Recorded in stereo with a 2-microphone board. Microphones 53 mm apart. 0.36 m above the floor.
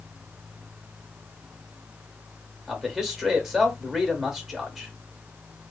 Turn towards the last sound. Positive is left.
turn(degrees=-5)  # may be behind; listen again after turning